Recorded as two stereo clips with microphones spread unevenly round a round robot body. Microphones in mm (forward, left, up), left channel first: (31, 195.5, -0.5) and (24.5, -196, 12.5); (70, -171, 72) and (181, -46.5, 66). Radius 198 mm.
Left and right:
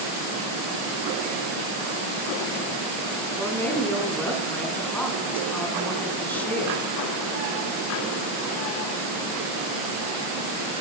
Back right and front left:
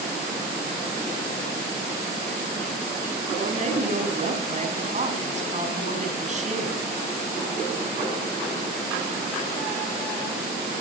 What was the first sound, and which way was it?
A woman speaking, 5° left.